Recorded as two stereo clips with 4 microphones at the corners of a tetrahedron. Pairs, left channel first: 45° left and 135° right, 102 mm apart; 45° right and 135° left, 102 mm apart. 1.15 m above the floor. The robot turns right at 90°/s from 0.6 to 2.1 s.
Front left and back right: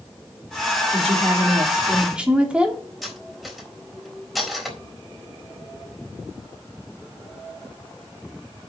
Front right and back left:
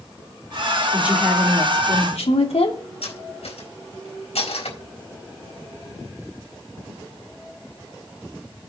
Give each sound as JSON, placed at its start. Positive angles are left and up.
{"t": 0.9, "sound": "a woman speaking", "azimuth_deg": -160, "distance_m": 3.0}
{"t": 3.0, "sound": "cutlery clinking", "azimuth_deg": -45, "distance_m": 4.0}